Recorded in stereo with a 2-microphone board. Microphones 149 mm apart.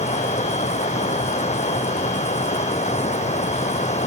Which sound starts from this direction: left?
Running water, at 0.0 s.